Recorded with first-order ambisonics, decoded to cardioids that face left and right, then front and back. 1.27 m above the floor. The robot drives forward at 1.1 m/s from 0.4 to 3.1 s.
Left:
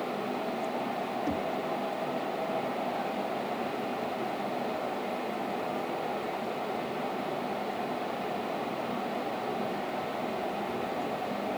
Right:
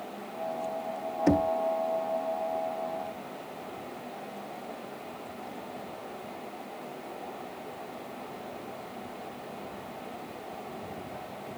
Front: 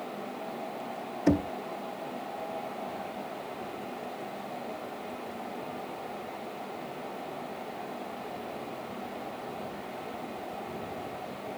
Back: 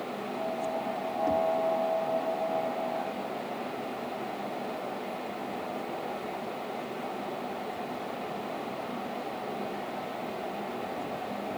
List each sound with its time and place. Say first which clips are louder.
1.3 s knocking: right 11 dB, even; 40° right; by 1.5 s 45° right